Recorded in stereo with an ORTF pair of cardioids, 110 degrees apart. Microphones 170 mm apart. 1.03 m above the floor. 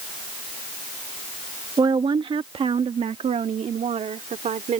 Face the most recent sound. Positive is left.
turn(degrees=-45)